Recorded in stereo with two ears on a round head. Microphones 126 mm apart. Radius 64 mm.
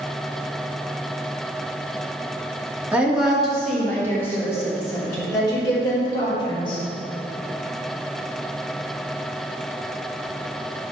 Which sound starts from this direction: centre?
A woman speaking, at 2.9 s.